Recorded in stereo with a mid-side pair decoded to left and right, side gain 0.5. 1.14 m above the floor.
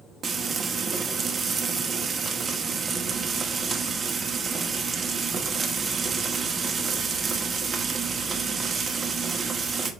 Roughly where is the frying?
Ahead right.